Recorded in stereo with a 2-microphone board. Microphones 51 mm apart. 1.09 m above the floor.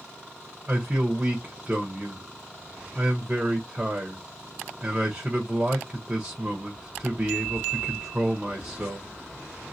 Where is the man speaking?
20° right (ahead or behind), 0.8 m.